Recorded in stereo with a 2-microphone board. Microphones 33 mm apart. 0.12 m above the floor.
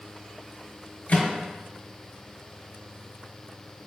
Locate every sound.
1.1 s a microwave: 45° left (ahead or behind), 1.4 m